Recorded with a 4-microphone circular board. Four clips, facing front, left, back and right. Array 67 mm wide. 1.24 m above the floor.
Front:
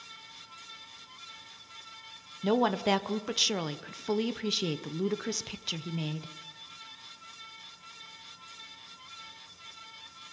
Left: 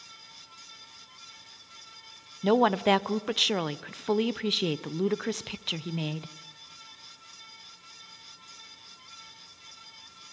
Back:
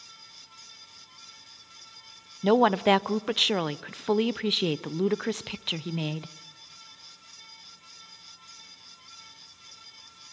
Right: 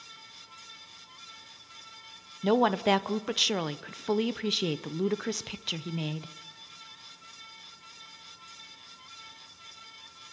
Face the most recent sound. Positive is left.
turn(degrees=170)